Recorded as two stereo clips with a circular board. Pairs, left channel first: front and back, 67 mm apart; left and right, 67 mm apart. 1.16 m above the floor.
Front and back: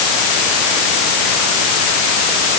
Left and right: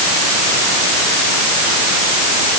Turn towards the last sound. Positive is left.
No sound to turn to.